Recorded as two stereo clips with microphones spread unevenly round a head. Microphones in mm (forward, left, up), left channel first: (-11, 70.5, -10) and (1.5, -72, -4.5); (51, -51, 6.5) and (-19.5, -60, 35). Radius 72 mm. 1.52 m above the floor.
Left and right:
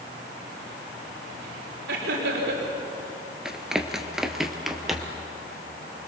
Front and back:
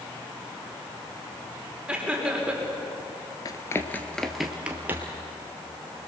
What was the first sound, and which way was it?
Laughter, 100° right.